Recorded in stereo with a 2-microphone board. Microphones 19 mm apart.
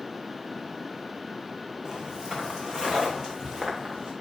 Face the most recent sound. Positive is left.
turn(degrees=-40)  # may be behind; listen again after turning